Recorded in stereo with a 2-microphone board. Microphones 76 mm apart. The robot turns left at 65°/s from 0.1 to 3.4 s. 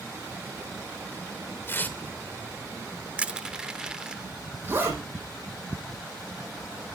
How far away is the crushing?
About 0.8 m.